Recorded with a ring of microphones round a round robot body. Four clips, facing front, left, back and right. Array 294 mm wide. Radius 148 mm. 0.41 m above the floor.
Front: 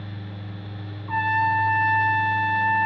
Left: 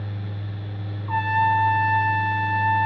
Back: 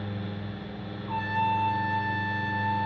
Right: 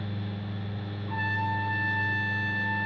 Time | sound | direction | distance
1.1 | a trumpet | 70° left | 2 m